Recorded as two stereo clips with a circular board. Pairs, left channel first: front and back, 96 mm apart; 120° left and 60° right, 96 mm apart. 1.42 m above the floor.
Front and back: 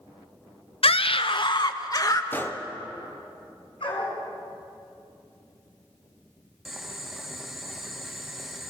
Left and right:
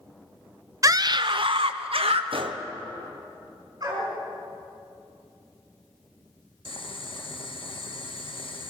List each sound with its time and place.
0.8 s a scream: 5° right, 0.8 m; by 2.2 s 50° right, 1.5 m
2.3 s a gunshot: 70° right, 0.9 m
3.8 s a dog barking: 15° right, 4.5 m
6.7 s boiling: 90° left, 1.4 m